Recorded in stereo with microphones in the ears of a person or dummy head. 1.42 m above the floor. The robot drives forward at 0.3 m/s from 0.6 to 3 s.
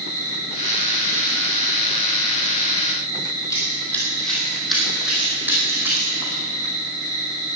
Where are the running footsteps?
15° left (ahead or behind), 2.5 m; by 6.4 s 20° right (ahead or behind), 4.5 m.